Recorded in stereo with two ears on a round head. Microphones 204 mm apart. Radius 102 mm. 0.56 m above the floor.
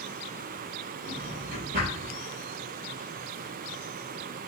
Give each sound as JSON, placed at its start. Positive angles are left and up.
{"t": 1.0, "sound": "a drawer", "side_deg": -45, "distance_m": 1.9}